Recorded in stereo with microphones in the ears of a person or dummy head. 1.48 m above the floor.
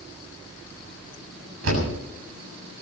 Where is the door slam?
85° right, 7 m.